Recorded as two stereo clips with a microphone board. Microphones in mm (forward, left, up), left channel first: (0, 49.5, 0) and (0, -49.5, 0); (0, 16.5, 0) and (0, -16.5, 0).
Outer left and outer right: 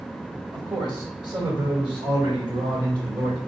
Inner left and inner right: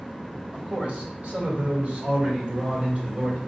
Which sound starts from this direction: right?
A man speaking, at 0.5 s.